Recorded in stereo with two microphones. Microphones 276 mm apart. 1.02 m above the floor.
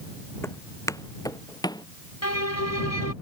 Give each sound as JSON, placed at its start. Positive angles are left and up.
{"t": 0.4, "sound": "footsteps", "side_deg": 10}
{"t": 2.2, "sound": "a violin", "side_deg": 70}